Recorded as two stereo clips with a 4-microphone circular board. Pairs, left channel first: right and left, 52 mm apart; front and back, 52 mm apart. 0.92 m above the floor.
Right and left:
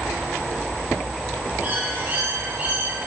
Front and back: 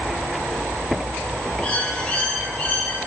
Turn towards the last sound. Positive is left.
turn(degrees=60)